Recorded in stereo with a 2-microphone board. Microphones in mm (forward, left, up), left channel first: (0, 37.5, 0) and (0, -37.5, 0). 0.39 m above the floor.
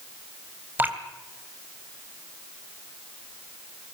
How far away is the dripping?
About 2.5 m.